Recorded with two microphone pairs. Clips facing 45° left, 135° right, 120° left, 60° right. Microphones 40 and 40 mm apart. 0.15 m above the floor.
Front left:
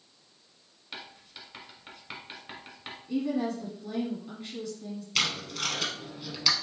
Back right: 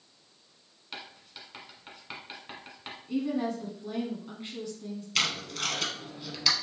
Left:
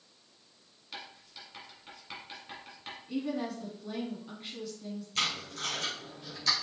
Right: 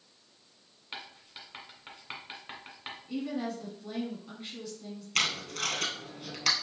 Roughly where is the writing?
Ahead right.